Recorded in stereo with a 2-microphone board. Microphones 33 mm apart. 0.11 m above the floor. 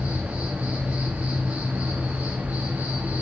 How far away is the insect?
About 3 m.